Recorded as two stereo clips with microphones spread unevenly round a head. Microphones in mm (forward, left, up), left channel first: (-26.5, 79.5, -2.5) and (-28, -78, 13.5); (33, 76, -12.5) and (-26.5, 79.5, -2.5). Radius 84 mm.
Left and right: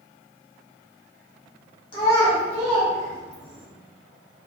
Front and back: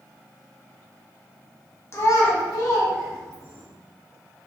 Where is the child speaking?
30° left, 0.6 m; by 3.6 s 40° right, 1.2 m.